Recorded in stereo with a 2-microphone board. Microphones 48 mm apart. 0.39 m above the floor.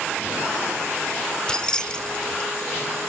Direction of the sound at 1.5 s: 20° left (ahead or behind).